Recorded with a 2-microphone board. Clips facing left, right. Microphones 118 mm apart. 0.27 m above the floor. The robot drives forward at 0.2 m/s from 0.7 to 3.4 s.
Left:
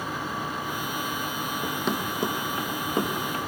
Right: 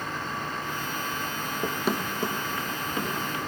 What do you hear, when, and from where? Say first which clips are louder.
1.6 s running footsteps: right 2 dB; 25° right (ahead or behind), 0.7 m; by 3.4 s 40° left (ahead or behind), 2 m